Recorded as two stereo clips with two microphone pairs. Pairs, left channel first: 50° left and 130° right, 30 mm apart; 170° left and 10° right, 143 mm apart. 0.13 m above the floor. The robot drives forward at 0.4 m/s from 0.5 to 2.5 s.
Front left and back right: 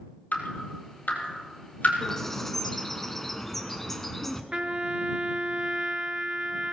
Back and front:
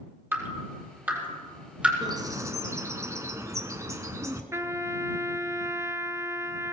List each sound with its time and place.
0.3 s dripping: 60° left, 4 m; by 1.9 s 70° left, 4 m
2.0 s a bird: 15° right, 1.1 m; by 4.4 s 20° right, 1.0 m
4.5 s a trumpet: 80° right, 0.8 m